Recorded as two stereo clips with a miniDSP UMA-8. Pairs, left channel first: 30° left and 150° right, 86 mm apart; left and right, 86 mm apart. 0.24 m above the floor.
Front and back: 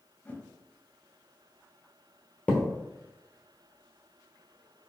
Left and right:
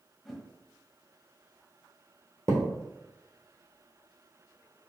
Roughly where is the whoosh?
Ahead.